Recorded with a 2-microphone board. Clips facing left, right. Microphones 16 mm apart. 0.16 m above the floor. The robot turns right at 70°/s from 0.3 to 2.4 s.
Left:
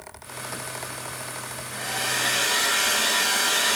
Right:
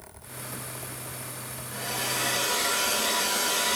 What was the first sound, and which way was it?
A hair dryer, 15° left.